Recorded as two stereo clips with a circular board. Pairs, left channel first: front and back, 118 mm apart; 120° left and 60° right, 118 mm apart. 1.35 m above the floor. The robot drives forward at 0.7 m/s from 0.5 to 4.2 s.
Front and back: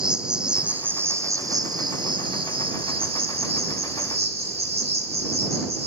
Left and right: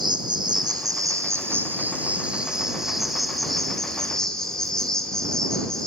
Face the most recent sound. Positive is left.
turn(degrees=-155)